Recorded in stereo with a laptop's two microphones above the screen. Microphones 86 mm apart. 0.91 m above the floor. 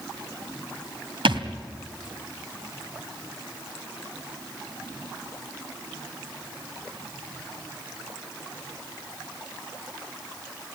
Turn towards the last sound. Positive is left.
turn(degrees=-75)  # may be behind; listen again after turning